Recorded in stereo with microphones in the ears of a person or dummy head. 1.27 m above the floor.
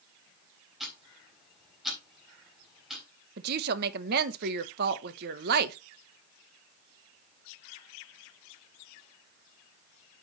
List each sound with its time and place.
0.8 s ticking: centre (ahead or behind), 3.5 m
3.4 s a woman speaking: 55° right (ahead or behind), 0.9 m